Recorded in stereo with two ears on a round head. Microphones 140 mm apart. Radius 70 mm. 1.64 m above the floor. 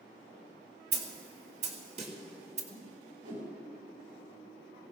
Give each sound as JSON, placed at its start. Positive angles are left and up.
{"t": 0.9, "sound": "a snare drum", "side_deg": -50, "distance_m": 2.5}
{"t": 2.7, "sound": "a whoosh", "side_deg": -50, "distance_m": 6.0}